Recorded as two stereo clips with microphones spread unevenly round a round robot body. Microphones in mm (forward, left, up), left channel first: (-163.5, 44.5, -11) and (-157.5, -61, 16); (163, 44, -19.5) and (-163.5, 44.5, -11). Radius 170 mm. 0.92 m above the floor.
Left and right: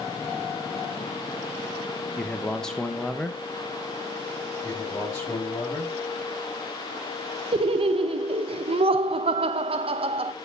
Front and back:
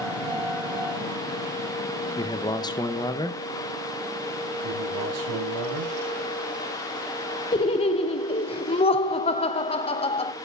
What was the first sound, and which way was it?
A man speaking, 55° left.